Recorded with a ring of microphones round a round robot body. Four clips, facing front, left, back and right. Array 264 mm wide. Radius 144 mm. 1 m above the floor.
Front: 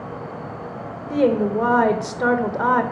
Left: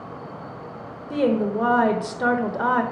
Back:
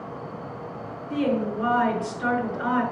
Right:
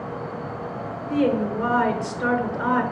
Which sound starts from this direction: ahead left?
A woman speaking, at 1.1 s.